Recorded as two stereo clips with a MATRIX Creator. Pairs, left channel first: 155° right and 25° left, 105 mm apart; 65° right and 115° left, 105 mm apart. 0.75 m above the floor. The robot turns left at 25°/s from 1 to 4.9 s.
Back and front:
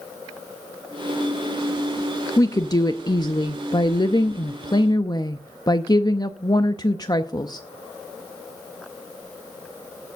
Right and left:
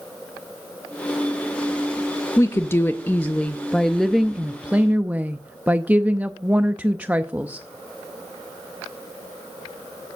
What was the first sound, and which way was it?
A woman speaking, 115° right.